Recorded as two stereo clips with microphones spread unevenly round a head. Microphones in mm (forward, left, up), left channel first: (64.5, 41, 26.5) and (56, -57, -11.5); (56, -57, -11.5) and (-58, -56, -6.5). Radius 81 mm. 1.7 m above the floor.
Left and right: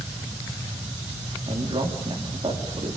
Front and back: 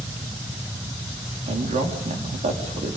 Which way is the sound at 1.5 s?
160° right.